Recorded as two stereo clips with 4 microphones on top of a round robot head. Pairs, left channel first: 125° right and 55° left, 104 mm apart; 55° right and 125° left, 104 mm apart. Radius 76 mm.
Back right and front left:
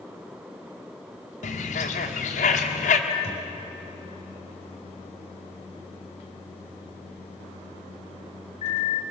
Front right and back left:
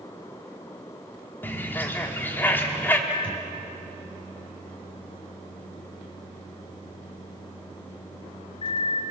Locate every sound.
1.4 s a bird: 130° right, 1.6 m
3.1 s a microwave: 100° right, 3.5 m